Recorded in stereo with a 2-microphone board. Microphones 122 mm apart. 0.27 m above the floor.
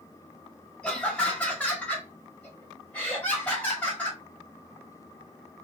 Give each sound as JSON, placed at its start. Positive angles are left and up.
{"t": 0.8, "sound": "laughter", "side_deg": 5, "distance_m": 1.5}